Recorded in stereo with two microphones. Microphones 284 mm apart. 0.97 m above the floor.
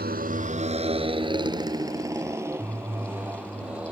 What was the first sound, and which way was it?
A motorcycle, 35° right (ahead or behind).